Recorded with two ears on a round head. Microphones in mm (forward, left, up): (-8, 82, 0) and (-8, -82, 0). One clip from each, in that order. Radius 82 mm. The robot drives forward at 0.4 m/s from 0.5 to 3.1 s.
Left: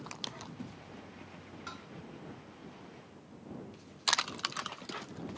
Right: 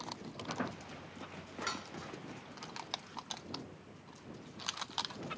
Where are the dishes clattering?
60° right (ahead or behind).